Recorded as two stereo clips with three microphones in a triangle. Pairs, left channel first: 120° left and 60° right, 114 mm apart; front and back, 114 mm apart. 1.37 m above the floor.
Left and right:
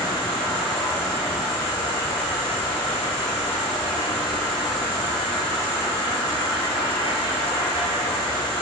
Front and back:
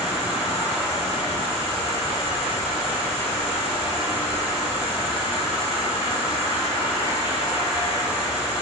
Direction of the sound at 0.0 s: 115° left.